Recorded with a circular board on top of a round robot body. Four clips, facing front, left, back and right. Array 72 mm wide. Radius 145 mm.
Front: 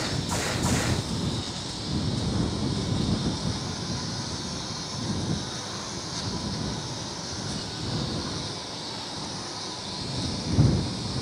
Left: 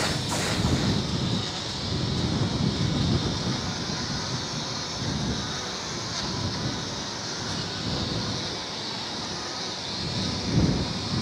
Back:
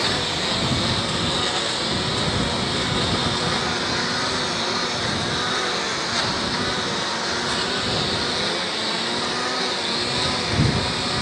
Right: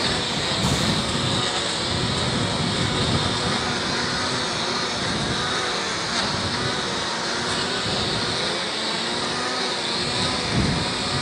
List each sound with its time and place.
0.0 s a lawn mower: 145° right